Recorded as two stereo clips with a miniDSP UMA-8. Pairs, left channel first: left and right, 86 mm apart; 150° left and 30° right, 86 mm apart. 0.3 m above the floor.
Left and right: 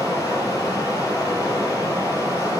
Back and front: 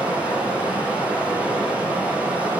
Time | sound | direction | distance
0.0 | running water | 45° left | 3.5 m